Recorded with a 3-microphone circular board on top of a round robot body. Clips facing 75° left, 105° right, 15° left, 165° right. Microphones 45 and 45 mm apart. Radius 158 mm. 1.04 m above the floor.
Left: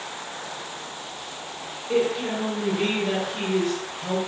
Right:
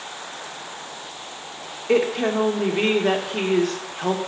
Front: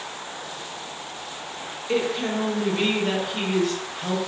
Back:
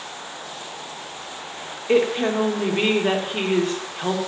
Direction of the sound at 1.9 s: 110° right.